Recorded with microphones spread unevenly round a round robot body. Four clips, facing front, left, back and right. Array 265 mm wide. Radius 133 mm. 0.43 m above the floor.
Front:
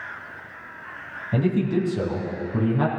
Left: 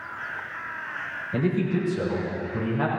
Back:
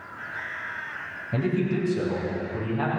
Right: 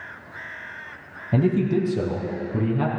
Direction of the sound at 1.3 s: 75° right.